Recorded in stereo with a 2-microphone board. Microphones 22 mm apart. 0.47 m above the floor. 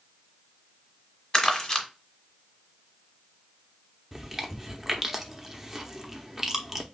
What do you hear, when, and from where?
1.3 s crumpling: 35° left (ahead or behind), 1.4 m
4.1 s chewing: 10° right (ahead or behind), 0.8 m